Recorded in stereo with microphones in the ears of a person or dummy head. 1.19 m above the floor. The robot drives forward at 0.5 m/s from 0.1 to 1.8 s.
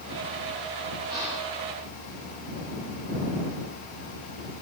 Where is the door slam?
I don't hear a door slam.